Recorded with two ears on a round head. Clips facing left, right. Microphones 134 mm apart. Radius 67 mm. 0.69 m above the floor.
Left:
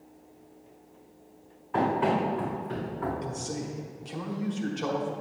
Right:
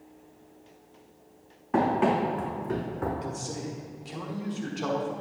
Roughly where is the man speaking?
Centre.